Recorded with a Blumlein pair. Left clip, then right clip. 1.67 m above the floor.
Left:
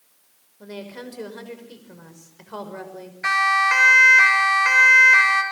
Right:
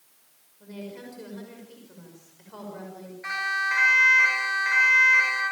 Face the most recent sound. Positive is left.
turn(degrees=30)